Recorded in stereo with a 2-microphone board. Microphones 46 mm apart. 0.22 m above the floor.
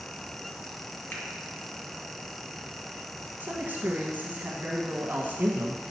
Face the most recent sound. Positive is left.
turn(degrees=-45)  # may be behind; listen again after turning